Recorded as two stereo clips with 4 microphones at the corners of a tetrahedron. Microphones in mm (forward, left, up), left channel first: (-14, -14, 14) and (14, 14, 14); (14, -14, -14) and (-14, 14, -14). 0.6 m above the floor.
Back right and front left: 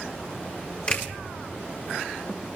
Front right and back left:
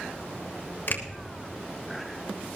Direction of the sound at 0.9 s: 75° right.